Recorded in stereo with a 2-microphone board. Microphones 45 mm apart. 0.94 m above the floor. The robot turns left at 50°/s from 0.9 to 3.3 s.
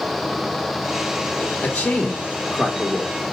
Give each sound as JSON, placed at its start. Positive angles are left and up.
{"t": 1.6, "sound": "a man speaking", "azimuth_deg": 35, "distance_m": 1.6}